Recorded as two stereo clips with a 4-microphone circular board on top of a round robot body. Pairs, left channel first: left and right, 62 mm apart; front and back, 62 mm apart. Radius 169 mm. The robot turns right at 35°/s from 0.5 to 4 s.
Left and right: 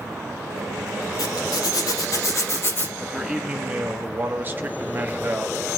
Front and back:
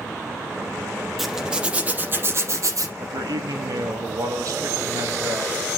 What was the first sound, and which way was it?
A zipper, 90° left.